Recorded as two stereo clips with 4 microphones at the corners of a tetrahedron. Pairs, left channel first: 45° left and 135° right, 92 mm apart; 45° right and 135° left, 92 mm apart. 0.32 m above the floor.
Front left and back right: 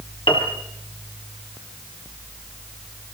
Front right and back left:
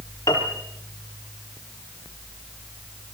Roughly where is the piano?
Ahead.